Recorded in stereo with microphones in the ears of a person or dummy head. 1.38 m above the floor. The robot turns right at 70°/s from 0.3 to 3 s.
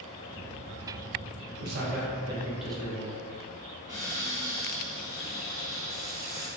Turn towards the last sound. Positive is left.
turn(degrees=-15)  # may be behind; listen again after turning